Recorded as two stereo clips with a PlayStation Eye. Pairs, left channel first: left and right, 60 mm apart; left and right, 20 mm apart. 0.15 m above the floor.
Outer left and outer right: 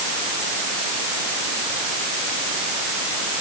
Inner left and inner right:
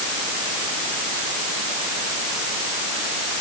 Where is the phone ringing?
I don't hear a phone ringing.